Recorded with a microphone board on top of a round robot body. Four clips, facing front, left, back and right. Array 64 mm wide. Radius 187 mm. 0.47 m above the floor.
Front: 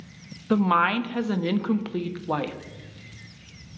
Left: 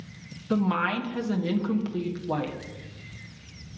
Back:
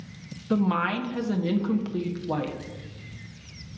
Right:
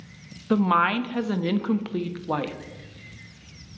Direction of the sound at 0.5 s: 40° right.